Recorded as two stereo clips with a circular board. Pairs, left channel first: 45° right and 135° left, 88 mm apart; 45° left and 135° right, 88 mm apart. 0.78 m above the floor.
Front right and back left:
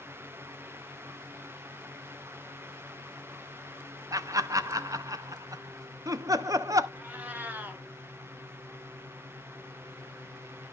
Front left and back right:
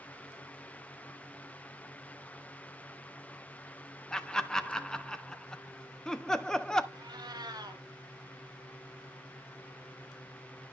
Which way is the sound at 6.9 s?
160° right.